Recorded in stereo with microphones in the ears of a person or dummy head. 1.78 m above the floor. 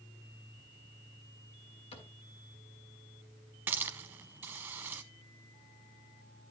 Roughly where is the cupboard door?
Left.